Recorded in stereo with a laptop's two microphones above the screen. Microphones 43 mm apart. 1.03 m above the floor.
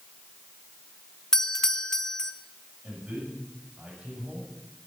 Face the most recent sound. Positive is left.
turn(degrees=-25)  # may be behind; listen again after turning